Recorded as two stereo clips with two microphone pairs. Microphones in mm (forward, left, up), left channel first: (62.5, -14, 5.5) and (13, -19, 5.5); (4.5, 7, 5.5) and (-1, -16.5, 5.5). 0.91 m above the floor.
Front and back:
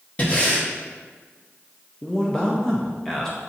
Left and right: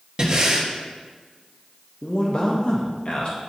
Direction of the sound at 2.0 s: 75° left.